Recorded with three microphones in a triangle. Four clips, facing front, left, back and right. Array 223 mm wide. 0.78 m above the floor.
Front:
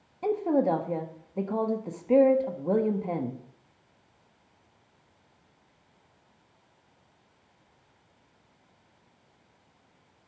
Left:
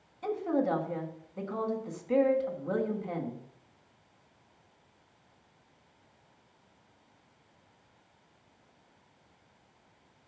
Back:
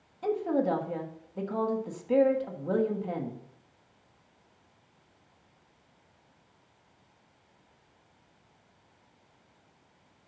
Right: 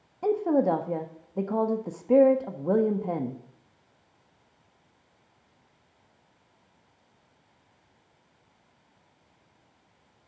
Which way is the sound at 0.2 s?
65° right.